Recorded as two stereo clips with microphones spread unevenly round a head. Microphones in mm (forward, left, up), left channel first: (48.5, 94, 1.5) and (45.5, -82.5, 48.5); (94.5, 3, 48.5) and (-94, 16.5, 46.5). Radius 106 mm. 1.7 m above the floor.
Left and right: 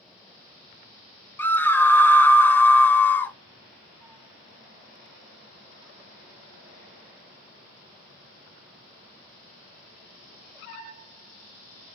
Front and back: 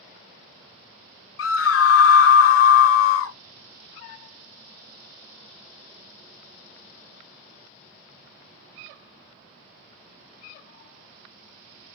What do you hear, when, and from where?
1.4 s a scream: 10° left, 0.6 m